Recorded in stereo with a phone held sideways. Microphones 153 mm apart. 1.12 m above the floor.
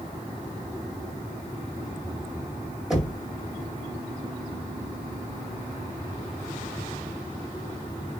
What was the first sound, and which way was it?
Knocking, 5° right (ahead or behind).